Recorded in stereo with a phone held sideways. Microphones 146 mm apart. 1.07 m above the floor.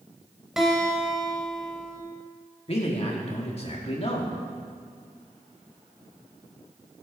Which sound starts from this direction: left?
A man speaking, at 2.7 s.